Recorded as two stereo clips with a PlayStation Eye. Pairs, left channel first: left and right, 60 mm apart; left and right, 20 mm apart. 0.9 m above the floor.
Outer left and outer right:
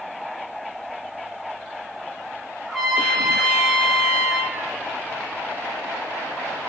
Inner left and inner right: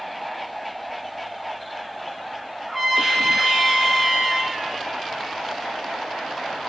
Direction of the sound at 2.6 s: Centre (ahead or behind).